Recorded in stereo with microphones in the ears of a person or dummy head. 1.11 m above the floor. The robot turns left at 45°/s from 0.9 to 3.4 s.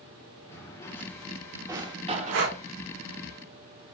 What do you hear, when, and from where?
0.5 s a drawer: 20° left (ahead or behind), 0.8 m; by 2.5 s 50° right (ahead or behind), 0.8 m
2.3 s breathing: 65° right (ahead or behind), 0.6 m; by 2.6 s 55° right (ahead or behind), 0.6 m